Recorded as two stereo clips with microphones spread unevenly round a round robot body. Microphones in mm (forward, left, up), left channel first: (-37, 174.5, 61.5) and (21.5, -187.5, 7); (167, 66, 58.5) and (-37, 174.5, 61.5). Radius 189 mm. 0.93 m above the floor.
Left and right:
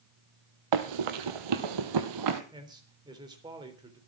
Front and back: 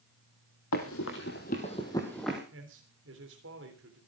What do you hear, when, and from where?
0.7 s running footsteps: 70° right, 1.7 m; by 2.4 s 120° right, 1.7 m
2.5 s a man speaking: 160° right, 3.5 m